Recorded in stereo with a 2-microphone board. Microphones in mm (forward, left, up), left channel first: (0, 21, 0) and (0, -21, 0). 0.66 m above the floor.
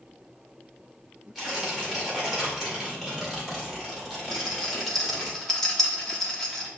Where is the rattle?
5° left (ahead or behind), 1.0 m.